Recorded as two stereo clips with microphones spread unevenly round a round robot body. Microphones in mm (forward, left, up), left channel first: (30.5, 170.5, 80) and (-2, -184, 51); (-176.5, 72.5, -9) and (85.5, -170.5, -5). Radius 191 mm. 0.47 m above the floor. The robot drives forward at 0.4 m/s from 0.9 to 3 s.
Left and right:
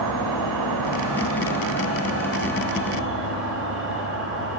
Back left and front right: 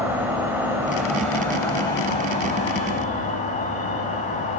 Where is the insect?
130° right, 0.9 m; by 4.6 s 155° right, 1.6 m.